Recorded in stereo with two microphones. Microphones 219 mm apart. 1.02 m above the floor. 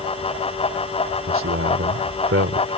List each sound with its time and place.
1.3 s a man speaking: 70° right (ahead or behind)